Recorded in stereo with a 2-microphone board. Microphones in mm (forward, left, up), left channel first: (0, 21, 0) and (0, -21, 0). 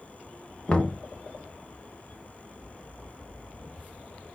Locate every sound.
0.7 s knocking: 25° left (ahead or behind), 0.8 m